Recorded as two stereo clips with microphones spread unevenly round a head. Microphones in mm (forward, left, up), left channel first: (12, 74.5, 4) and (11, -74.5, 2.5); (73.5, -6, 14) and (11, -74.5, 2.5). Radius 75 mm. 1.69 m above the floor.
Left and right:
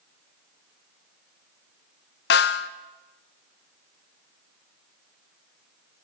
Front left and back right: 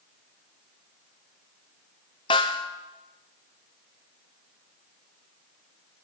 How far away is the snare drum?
About 0.5 m.